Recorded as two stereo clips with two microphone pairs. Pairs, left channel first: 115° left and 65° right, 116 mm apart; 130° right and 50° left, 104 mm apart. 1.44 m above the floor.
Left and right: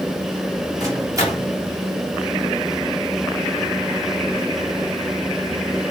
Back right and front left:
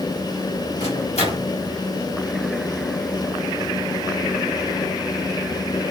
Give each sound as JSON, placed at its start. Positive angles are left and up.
{"t": 0.8, "sound": "a microwave", "azimuth_deg": -125, "distance_m": 4.0}